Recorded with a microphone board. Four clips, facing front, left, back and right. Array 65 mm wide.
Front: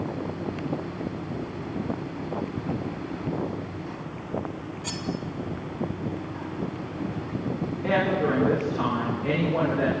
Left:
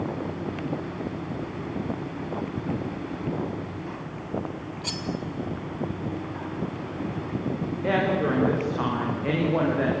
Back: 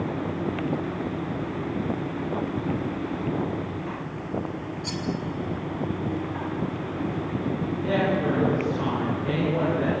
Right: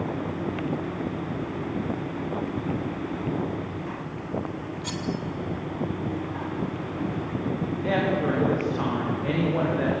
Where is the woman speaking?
75° left, 9.5 m.